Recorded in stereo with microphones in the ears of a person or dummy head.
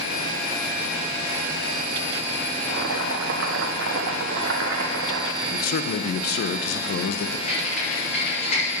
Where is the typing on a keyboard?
55° left (ahead or behind), 5.5 m.